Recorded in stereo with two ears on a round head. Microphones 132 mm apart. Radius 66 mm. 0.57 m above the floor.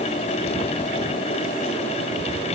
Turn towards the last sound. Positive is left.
No sound to turn to.